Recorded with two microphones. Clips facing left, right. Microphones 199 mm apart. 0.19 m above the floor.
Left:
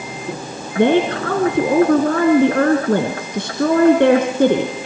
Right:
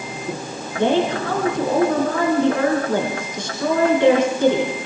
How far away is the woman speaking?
About 2.5 m.